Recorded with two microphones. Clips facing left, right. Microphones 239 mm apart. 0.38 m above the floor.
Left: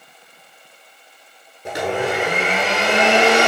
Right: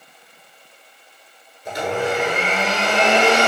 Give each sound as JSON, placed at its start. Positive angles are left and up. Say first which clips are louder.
{"t": 1.6, "sound": "a blender", "louder": "left 1 dB", "side_deg": 75, "distance_m": 1.2}